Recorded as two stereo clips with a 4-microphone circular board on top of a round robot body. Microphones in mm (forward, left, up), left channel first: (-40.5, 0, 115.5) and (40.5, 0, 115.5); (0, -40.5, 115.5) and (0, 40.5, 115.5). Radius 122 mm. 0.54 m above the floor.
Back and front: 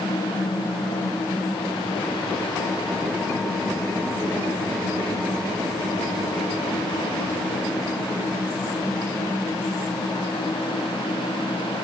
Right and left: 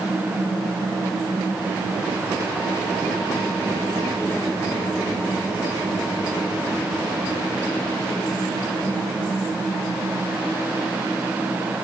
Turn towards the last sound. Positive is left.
No sound to turn to.